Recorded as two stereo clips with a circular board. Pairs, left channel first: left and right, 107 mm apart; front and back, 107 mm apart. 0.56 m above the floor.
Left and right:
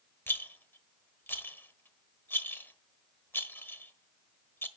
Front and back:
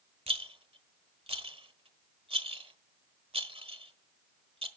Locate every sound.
0.3 s a rattle: 160° left, 1.2 m